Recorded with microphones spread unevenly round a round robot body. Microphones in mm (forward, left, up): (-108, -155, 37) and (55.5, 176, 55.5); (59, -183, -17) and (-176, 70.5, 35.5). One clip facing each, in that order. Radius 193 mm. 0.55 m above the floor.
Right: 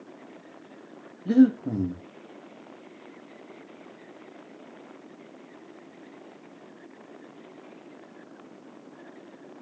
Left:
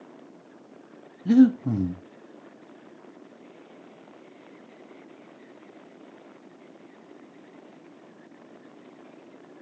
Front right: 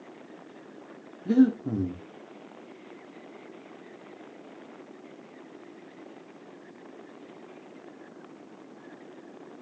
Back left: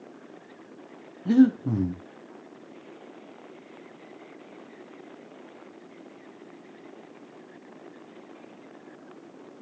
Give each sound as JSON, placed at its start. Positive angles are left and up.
{"t": 1.2, "sound": "breathing", "azimuth_deg": 60, "distance_m": 0.8}